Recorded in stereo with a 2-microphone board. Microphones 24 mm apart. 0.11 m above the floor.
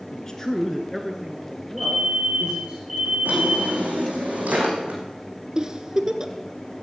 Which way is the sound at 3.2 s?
80° right.